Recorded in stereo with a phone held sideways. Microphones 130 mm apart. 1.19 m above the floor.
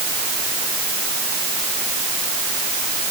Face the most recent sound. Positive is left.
No sound to turn to.